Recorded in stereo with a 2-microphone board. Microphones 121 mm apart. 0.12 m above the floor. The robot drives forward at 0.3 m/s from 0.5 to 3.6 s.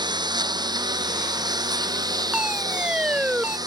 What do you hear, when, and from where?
0.0 s a lawn mower: 40° right (ahead or behind); by 3.7 s 35° right (ahead or behind)
2.3 s a fire alarm: 10° right (ahead or behind)